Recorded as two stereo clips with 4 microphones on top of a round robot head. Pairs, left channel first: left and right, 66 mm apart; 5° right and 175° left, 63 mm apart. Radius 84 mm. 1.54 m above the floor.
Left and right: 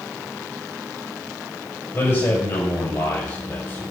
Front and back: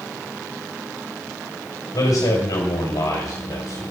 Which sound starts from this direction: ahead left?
A man speaking, at 1.9 s.